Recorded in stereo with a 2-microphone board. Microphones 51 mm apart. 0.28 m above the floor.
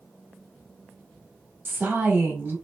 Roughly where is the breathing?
I don't hear breathing.